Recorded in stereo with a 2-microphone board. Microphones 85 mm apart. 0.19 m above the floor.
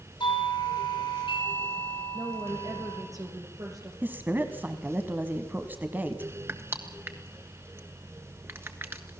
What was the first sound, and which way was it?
A doorbell, 70° left (ahead or behind).